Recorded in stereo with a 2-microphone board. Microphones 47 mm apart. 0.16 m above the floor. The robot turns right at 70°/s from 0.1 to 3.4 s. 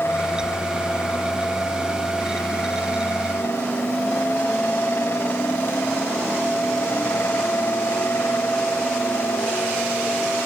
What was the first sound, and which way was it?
Only background noise.